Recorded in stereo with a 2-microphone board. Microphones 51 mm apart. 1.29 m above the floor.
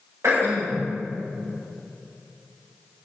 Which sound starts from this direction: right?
Throat clearing, at 0.2 s.